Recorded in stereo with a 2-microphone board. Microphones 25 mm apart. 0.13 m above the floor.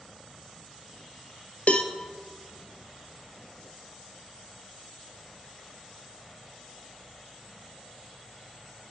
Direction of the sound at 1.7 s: 55° left (ahead or behind).